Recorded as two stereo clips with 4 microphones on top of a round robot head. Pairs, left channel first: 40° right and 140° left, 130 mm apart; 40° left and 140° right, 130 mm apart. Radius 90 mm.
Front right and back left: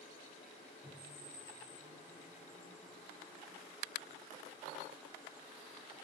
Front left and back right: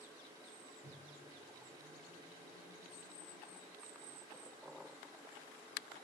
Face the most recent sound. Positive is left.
turn(degrees=75)